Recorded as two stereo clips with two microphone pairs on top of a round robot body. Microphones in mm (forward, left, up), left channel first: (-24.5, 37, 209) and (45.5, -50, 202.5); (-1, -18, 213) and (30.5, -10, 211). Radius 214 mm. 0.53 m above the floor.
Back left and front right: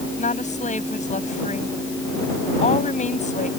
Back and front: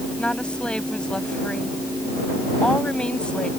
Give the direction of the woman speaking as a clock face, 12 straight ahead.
8 o'clock.